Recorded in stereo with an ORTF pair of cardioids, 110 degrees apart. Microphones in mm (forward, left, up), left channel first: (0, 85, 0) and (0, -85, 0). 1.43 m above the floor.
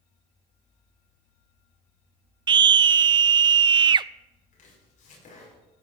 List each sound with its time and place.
2.5 s a scream: 30° right, 0.6 m
4.5 s chopping: 50° left, 5.5 m